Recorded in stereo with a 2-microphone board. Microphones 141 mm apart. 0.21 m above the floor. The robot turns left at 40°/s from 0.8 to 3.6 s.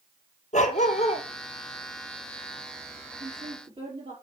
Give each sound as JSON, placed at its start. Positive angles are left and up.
{"t": 0.5, "sound": "a dog barking", "side_deg": 60, "distance_m": 1.3}
{"t": 3.2, "sound": "a woman speaking", "side_deg": -55, "distance_m": 4.0}